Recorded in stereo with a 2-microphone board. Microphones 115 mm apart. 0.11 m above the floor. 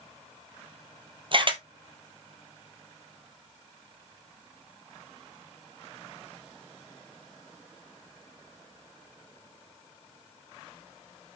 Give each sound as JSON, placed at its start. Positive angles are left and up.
{"t": 1.3, "sound": "a camera shutter", "side_deg": -45, "distance_m": 1.2}